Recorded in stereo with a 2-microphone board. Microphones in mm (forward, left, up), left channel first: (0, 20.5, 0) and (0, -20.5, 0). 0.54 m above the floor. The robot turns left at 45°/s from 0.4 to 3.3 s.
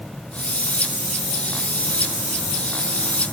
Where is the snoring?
No snoring in this recording.